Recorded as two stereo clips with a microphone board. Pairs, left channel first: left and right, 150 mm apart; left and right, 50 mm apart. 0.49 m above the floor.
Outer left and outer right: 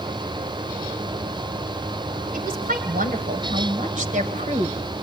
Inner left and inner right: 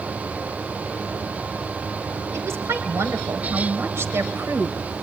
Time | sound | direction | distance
2.3 | a woman speaking | 70° right (ahead or behind) | 2.5 m